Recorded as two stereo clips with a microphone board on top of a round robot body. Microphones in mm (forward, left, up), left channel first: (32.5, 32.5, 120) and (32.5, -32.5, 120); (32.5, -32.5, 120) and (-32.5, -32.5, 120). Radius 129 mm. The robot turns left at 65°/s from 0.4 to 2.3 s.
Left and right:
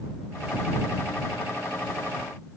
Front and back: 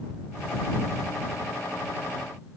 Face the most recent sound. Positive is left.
No sound to turn to.